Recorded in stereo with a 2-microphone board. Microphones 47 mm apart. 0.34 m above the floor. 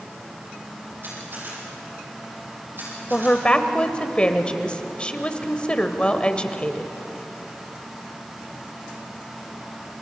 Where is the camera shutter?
50° right (ahead or behind), 9 m.